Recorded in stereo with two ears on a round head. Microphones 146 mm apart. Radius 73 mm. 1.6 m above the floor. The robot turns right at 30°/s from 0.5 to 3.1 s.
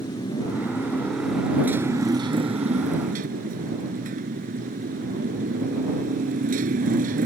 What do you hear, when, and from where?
0.0 s a motorcycle: 155° left; by 7.3 s 125° right